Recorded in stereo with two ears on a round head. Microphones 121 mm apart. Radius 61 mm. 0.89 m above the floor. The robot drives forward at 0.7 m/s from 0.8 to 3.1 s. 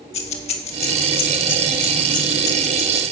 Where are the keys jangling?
50° left (ahead or behind), 1.7 m; by 3.0 s 25° left (ahead or behind), 3 m.